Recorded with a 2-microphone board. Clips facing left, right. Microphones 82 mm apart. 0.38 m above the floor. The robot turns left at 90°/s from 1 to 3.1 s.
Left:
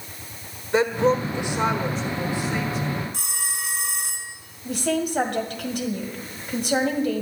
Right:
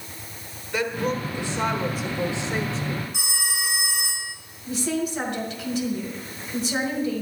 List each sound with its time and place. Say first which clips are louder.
0.7 s a woman speaking: left 6 dB; 75° left, 1.3 m; by 3.0 s 105° right, 1.3 m
3.1 s a phone ringing: right 2 dB; 10° right (ahead or behind), 2 m
4.7 s a woman speaking: left 2 dB; 60° left (ahead or behind), 1.9 m